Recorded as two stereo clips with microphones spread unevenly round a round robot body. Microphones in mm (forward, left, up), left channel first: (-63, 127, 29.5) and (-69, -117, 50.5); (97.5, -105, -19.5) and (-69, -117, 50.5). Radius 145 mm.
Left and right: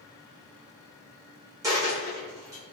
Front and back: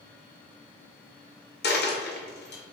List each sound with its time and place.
1.6 s a dropped coin: 10° right, 1.0 m